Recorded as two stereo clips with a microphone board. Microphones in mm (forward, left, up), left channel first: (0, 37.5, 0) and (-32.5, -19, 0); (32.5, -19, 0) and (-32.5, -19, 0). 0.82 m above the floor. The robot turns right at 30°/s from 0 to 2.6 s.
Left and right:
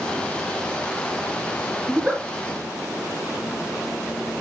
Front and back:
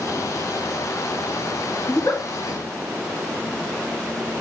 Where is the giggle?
45° right, 1.9 m; by 2.2 s 35° right, 1.9 m.